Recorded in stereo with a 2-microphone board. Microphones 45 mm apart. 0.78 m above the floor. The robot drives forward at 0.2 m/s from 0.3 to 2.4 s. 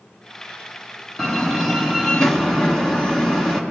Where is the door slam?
10° left (ahead or behind), 1.4 m.